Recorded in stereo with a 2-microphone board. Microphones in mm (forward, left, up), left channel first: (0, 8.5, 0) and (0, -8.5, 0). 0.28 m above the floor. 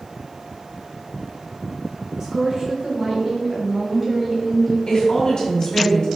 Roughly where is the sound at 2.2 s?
Right.